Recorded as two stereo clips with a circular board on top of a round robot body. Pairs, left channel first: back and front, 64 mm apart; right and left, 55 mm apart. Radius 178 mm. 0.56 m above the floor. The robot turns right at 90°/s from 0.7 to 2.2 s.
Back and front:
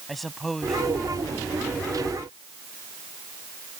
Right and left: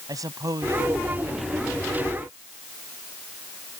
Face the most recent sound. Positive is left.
turn(degrees=-135)